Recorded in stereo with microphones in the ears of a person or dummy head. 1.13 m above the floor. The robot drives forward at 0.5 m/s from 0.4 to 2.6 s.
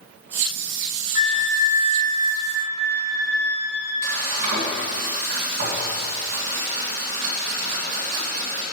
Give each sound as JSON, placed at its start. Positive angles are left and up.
{"t": 1.1, "sound": "a flute", "side_deg": 35, "distance_m": 0.5}
{"t": 4.0, "sound": "frying", "side_deg": -40, "distance_m": 1.8}